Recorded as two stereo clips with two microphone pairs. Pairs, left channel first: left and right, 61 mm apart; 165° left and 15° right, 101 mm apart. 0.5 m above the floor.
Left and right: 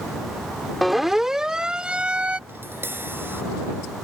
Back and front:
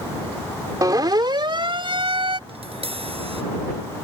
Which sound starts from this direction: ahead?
A siren, at 0.8 s.